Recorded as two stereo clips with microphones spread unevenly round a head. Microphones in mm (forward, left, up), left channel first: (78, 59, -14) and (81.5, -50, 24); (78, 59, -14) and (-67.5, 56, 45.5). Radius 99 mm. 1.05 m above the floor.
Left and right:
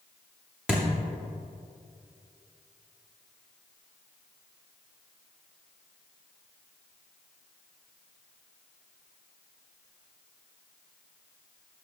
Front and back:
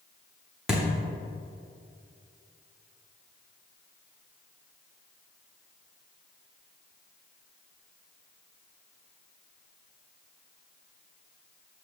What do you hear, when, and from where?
0.7 s a thud: 130° right, 0.7 m